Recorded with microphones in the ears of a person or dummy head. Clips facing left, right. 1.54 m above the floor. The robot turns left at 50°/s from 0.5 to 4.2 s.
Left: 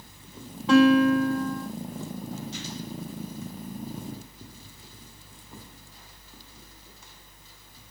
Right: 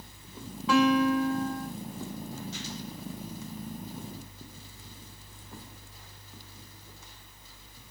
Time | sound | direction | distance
0.7 | a guitar | 145° left | 1.9 m